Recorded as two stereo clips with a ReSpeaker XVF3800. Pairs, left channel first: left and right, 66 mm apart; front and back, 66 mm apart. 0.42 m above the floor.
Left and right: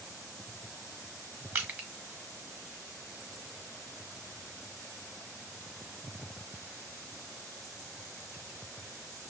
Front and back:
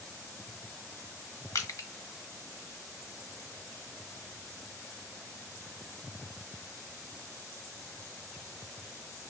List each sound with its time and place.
1.6 s crushing: 30° right, 1.1 m